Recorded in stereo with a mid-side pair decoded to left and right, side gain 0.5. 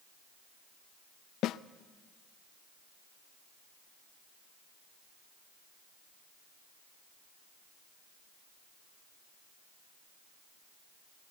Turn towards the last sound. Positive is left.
turn(degrees=70)